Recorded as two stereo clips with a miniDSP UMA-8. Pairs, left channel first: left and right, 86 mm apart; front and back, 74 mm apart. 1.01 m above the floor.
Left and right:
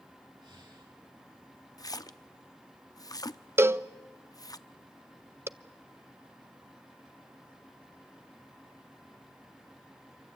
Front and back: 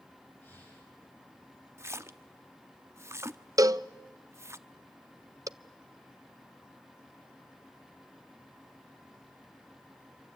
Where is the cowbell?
145° right, 0.6 m.